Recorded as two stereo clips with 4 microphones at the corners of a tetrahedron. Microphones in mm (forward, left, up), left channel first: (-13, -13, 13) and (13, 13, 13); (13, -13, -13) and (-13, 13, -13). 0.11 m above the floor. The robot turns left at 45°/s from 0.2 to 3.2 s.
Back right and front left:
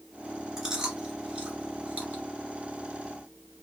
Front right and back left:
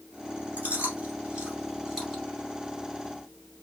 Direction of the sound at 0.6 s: 125° left.